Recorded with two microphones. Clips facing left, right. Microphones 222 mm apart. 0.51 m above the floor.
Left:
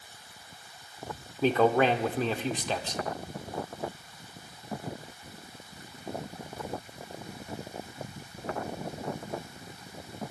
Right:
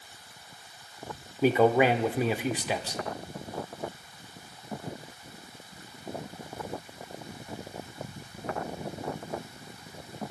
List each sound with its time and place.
1.4 s a man speaking: 10° right (ahead or behind), 0.9 m